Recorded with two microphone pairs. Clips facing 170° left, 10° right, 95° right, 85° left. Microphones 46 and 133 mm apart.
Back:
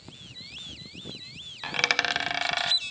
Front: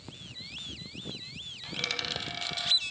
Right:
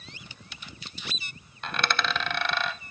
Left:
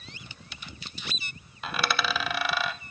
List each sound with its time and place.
1.6 s a dropped coin: 170° left, 0.5 m